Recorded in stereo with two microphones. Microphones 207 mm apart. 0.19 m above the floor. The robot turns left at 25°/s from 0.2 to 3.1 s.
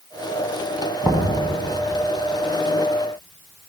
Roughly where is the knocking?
Centre.